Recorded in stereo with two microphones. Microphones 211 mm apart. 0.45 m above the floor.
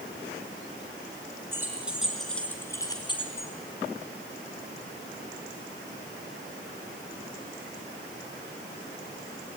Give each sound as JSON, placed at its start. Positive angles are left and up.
{"t": 1.5, "sound": "keys jangling", "side_deg": -10, "distance_m": 4.0}